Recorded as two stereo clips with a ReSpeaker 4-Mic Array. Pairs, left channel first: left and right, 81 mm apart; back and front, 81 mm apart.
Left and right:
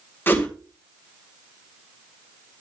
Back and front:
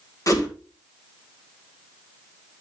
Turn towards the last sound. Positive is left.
turn(degrees=150)